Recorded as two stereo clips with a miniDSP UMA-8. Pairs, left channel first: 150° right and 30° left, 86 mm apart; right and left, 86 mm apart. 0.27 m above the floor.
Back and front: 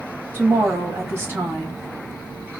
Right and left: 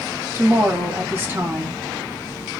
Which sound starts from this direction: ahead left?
A woman speaking, at 0.3 s.